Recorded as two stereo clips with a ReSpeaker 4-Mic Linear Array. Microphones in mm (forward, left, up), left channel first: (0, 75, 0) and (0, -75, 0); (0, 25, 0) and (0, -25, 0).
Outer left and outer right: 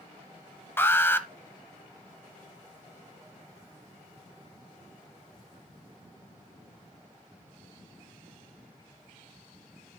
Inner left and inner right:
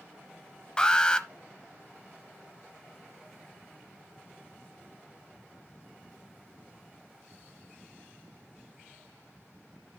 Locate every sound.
0.8 s an alarm: 15° left (ahead or behind), 0.8 m